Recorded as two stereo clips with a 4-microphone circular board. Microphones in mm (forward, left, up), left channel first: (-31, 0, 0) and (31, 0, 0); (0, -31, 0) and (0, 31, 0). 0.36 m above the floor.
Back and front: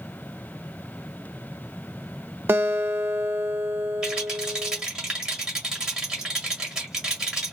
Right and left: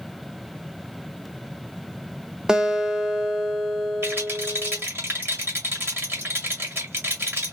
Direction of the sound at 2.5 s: 20° left.